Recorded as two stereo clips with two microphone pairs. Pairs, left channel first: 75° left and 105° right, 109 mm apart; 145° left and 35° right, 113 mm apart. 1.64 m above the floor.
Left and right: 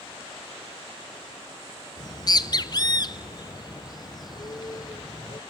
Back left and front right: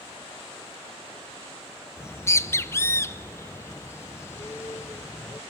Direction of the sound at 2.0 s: 90° left.